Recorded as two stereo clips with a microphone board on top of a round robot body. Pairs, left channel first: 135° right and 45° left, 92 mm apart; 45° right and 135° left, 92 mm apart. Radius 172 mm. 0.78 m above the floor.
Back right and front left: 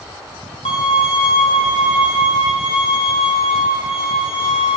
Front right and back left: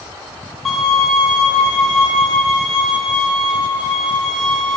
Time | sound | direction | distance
0.7 | a violin | 130° right | 5.5 m